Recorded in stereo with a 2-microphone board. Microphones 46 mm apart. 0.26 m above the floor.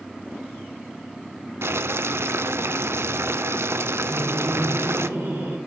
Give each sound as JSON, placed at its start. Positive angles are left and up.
{"t": 1.6, "sound": "boiling", "side_deg": -65, "distance_m": 0.6}
{"t": 4.1, "sound": "laughter", "side_deg": -70, "distance_m": 5.0}